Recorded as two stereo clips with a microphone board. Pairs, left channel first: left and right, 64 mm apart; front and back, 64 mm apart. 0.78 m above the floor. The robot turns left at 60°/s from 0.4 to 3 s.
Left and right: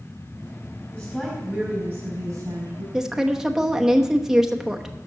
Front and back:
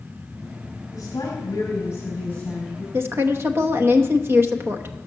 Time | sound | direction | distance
0.9 | a woman speaking | 15° left | 5 m
2.9 | a woman speaking | 165° right | 0.9 m